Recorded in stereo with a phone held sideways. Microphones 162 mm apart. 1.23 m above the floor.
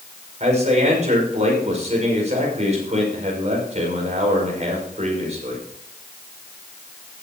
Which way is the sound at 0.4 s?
45° right (ahead or behind).